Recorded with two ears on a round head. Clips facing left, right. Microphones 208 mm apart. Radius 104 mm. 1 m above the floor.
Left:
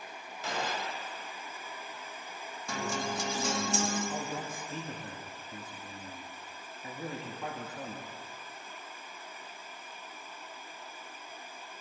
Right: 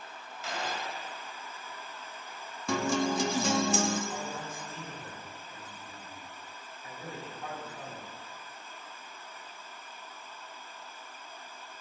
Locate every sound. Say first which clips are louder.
0.4 s a gunshot: left 1 dB; 70° left (ahead or behind), 1.8 m
2.7 s a guitar: right 7 dB; 55° right (ahead or behind), 1.5 m
4.1 s a man speaking: left 1 dB; 65° left (ahead or behind), 2 m